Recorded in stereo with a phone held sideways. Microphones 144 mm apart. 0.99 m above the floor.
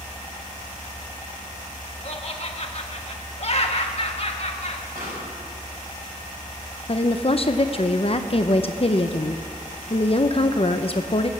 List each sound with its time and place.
2.0 s laughter: 45° left (ahead or behind), 1.5 m
5.0 s a pop: 80° right, 4.5 m
6.9 s a woman speaking: 45° left (ahead or behind), 0.6 m